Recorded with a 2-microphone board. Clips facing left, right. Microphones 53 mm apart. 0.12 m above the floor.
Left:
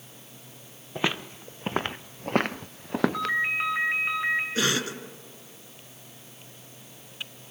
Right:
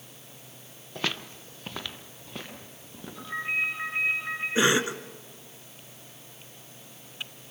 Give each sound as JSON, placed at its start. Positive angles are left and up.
{"t": 0.9, "sound": "footsteps", "side_deg": 20, "distance_m": 1.1}
{"t": 3.1, "sound": "a ringtone", "side_deg": 80, "distance_m": 6.5}
{"t": 4.5, "sound": "a cough", "side_deg": -25, "distance_m": 1.2}